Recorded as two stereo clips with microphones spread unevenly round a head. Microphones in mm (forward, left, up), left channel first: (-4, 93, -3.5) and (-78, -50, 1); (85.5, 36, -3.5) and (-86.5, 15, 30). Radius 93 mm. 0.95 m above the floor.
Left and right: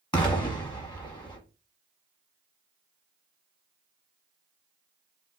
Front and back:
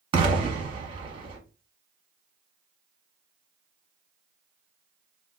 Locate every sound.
0.1 s an explosion: 125° left, 1.1 m